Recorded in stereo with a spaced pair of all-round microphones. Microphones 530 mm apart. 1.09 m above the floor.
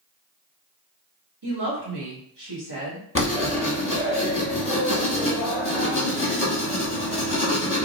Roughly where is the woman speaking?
Right.